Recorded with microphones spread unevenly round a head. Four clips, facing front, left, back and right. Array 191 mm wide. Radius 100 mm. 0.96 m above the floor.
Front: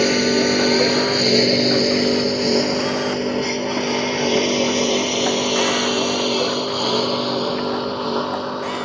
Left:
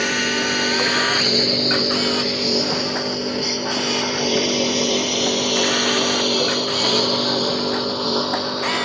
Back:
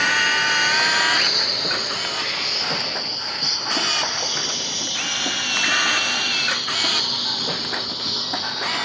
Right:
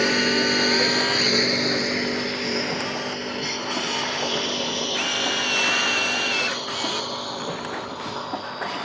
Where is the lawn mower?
10° right; by 8.9 s 55° left.